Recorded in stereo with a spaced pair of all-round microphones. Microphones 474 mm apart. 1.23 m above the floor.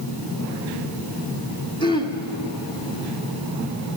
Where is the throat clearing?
10° left (ahead or behind), 1.8 m.